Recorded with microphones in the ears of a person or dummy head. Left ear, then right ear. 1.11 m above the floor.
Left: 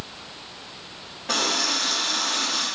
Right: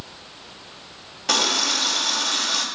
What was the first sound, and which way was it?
A running tap, 70° right (ahead or behind).